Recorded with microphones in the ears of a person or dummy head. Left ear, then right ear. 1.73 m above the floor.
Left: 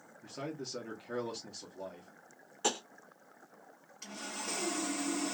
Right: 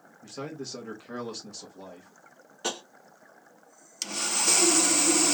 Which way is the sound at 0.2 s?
5° right (ahead or behind).